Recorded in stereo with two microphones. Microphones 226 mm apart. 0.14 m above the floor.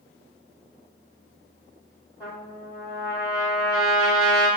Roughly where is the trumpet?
Centre.